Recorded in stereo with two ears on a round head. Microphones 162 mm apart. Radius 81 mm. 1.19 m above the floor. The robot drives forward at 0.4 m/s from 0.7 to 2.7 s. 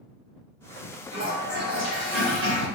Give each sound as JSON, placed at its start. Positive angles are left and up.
{"t": 1.1, "sound": "a toilet flushing", "side_deg": -90, "distance_m": 1.8}